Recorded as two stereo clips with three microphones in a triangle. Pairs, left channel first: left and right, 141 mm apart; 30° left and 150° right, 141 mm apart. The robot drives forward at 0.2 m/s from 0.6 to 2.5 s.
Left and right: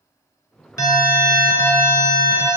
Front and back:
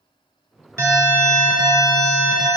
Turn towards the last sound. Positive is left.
turn(degrees=155)